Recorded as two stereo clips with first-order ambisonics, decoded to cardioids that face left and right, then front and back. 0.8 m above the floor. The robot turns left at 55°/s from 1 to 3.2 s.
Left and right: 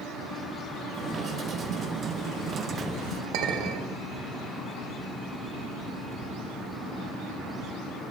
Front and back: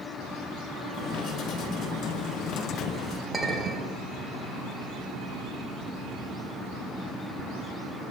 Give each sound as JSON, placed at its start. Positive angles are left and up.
{"t": 3.3, "sound": "a clink", "azimuth_deg": -90, "distance_m": 1.5}